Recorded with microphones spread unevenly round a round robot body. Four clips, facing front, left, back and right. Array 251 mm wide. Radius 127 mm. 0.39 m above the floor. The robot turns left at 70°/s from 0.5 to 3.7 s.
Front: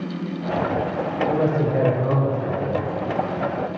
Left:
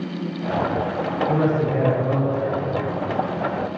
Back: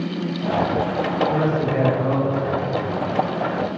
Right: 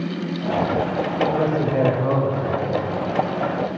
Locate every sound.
1.3 s a man speaking: 25° right, 1.8 m; by 2.8 s 125° right, 1.8 m